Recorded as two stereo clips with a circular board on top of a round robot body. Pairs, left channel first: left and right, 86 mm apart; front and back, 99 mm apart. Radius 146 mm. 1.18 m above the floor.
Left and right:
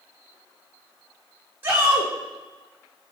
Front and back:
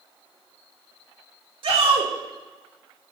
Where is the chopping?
I don't hear chopping.